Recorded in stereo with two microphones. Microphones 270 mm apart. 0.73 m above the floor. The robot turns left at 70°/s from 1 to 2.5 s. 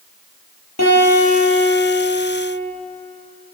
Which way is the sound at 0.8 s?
75° left.